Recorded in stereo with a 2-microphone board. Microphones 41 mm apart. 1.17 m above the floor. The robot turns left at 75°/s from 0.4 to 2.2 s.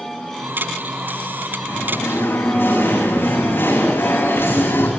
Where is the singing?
115° left, 7.5 m; by 4.9 s 70° left, 7.5 m.